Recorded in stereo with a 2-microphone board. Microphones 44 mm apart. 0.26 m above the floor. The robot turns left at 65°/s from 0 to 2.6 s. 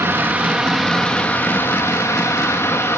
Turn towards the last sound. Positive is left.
turn(degrees=65)